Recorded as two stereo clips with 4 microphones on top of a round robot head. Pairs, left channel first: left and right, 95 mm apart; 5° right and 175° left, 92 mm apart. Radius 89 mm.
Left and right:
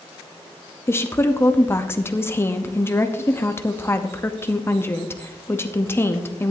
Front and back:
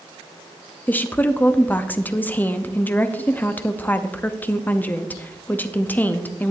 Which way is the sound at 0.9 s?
50° left.